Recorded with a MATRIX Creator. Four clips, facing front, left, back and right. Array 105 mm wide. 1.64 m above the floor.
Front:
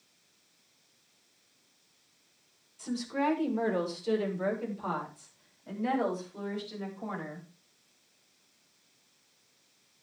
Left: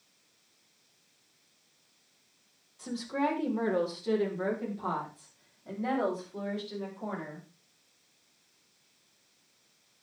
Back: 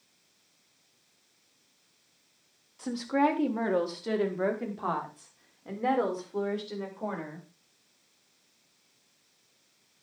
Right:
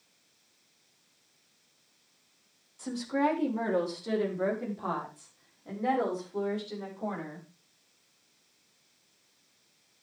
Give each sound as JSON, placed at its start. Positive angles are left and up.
{"t": 2.8, "sound": "a woman speaking", "azimuth_deg": -170, "distance_m": 3.5}